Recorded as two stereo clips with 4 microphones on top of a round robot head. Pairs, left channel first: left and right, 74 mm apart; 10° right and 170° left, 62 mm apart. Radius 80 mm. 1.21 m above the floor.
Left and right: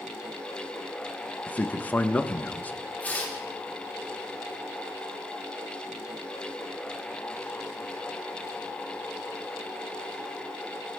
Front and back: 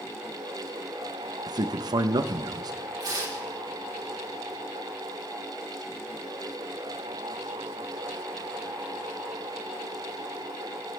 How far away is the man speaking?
About 1.1 m.